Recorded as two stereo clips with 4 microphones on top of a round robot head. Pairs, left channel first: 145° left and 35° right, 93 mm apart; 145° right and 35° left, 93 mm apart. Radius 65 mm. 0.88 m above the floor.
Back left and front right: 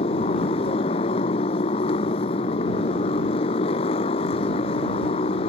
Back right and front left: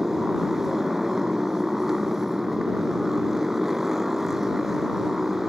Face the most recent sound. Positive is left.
turn(degrees=120)